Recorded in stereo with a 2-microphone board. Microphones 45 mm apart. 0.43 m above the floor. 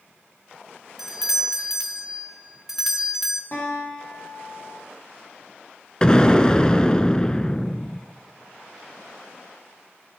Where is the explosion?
20° left (ahead or behind), 0.7 m.